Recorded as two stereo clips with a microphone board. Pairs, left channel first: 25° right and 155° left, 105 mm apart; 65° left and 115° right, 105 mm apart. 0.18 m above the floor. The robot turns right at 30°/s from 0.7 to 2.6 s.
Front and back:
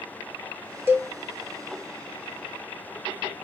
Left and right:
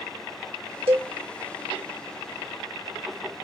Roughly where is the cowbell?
Behind right.